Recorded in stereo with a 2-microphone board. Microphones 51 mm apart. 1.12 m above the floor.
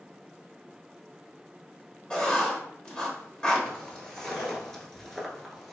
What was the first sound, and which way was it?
Writing, 15° left (ahead or behind).